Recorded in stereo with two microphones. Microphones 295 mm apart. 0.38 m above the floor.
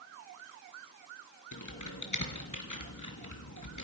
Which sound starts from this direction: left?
Typing on a keyboard, at 1.5 s.